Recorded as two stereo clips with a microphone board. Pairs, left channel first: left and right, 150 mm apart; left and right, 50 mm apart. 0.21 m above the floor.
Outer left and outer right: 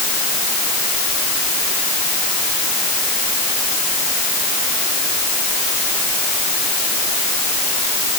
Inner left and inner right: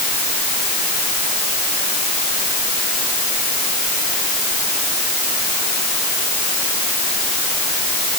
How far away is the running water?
I don't hear running water.